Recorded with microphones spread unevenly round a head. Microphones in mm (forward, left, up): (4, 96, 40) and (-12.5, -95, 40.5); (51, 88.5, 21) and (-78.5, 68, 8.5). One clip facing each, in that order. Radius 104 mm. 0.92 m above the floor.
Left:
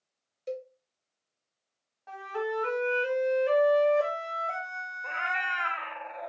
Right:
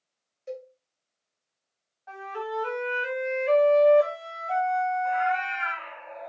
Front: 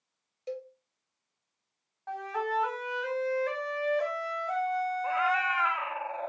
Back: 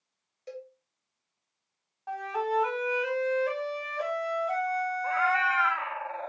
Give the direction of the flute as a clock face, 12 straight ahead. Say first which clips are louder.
Left 2 dB, back 2 dB; 8 o'clock.